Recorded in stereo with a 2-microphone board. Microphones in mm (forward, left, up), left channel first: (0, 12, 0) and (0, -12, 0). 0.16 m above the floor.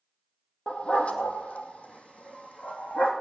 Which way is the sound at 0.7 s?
60° left (ahead or behind).